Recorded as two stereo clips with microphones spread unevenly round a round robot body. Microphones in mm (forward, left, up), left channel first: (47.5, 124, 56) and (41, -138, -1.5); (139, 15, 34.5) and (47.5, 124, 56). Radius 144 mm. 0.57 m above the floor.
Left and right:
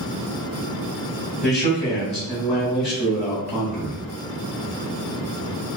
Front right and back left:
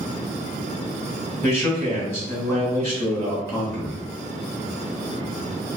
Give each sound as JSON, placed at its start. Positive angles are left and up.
{"t": 1.4, "sound": "a man speaking", "azimuth_deg": -25, "distance_m": 1.2}